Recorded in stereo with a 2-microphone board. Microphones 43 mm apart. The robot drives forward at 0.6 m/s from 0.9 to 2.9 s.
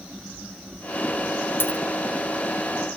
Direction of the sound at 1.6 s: 70° left (ahead or behind).